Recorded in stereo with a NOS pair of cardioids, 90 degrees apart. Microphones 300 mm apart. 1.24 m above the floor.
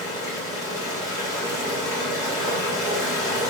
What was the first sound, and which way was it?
Running water, 10° right.